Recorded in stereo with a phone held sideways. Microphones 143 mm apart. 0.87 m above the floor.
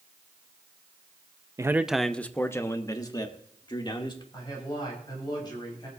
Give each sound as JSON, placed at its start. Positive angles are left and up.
{"t": 1.6, "sound": "a man speaking", "side_deg": -25, "distance_m": 0.6}
{"t": 4.3, "sound": "a man speaking", "side_deg": 30, "distance_m": 6.0}